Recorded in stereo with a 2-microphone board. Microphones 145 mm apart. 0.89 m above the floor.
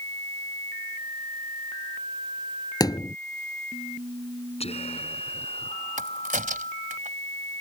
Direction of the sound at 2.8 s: 25° left (ahead or behind).